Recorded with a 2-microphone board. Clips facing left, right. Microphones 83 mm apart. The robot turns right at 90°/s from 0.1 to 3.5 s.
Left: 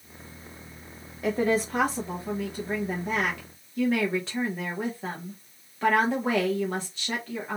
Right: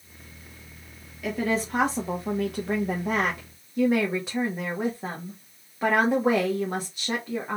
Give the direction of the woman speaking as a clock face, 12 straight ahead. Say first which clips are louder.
Left 2 dB; 7 o'clock.